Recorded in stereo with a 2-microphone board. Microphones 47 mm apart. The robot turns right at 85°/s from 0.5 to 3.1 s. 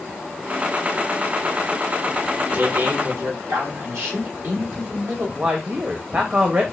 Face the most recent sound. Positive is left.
turn(degrees=-35)  # may be behind; listen again after turning